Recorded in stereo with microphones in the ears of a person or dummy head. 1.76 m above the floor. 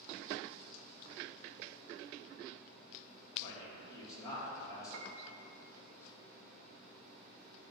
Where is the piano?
80° right, 1.1 m.